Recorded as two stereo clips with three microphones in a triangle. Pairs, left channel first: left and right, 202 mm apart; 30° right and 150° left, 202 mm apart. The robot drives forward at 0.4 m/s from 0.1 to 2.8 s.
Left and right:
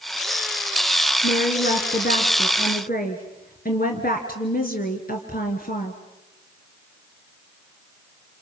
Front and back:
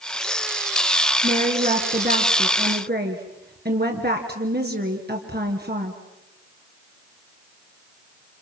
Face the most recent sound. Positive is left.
turn(degrees=125)